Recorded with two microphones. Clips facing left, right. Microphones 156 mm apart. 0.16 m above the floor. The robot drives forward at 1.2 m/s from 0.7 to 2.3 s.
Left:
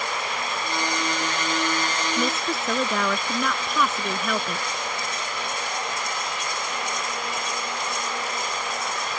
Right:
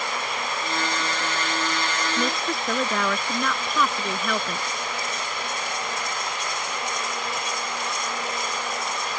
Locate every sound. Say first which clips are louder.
2.2 s a woman speaking: left 1 dB; centre (ahead or behind)